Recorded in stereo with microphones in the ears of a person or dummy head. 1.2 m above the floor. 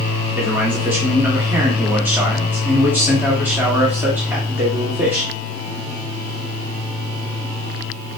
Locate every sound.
0.3 s a man speaking: 10° right (ahead or behind), 0.9 m